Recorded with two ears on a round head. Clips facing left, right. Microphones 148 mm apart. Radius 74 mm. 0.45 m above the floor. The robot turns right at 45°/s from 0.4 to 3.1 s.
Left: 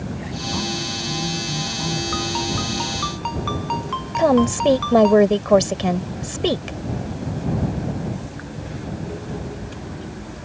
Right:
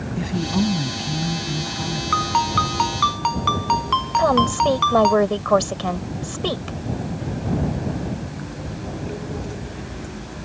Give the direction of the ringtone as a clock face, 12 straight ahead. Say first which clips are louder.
Right 3 dB; 4 o'clock.